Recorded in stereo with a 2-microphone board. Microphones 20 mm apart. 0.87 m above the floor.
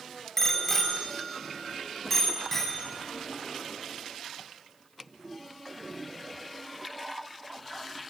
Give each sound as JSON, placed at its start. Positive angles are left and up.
{"t": 0.4, "sound": "a bicycle bell", "side_deg": 15, "distance_m": 3.0}